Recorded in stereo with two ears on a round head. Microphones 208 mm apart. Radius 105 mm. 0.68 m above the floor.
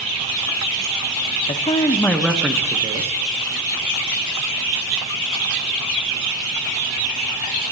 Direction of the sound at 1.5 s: 30° left (ahead or behind).